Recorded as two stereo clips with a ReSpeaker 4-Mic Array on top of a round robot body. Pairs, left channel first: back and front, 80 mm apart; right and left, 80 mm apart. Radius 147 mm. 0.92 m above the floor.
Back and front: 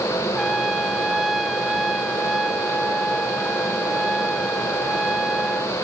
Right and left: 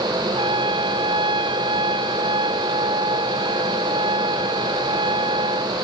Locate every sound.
0.4 s a trumpet: 90° left